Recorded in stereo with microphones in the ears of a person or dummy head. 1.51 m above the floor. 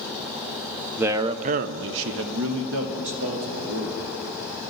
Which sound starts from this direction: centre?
A man speaking, at 1.0 s.